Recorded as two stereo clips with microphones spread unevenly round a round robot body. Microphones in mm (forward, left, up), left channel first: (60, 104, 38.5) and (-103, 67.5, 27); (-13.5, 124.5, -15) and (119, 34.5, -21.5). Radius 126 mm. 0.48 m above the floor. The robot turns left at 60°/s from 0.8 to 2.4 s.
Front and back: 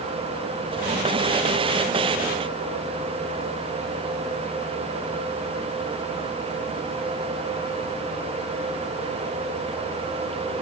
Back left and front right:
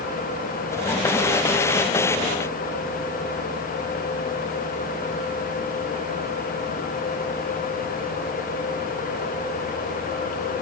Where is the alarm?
No alarm in this recording.